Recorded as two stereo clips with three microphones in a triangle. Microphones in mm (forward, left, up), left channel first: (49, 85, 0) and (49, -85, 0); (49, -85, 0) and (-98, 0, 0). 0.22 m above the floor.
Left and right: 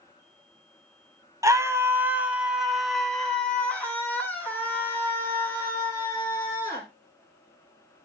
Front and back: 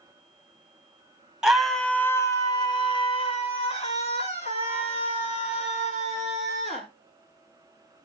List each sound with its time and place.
1.4 s a scream: 130° right, 1.2 m; by 6.8 s 15° left, 4 m